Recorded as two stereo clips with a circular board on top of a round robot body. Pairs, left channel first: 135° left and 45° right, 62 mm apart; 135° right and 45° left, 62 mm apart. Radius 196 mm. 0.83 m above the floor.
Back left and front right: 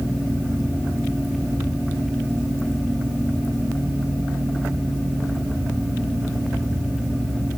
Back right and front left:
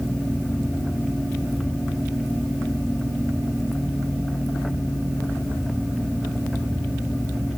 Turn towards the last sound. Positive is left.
No sound to turn to.